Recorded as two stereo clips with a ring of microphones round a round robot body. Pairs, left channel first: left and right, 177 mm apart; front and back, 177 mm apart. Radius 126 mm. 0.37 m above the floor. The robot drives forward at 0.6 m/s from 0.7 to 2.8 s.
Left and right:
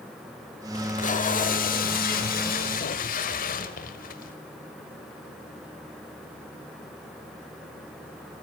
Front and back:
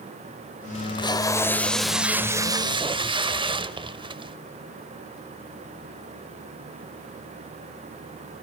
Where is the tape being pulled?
50° left, 1.3 m; by 4.4 s 125° left, 1.3 m.